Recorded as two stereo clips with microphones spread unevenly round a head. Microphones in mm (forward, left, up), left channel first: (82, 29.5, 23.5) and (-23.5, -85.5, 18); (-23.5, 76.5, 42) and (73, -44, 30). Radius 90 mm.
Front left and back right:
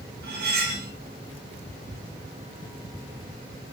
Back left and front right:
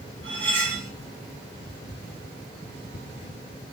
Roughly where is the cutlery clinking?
Behind right.